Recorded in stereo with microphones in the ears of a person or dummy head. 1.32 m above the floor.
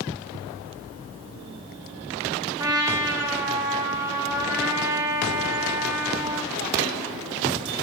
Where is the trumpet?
20° right (ahead or behind), 1.3 m.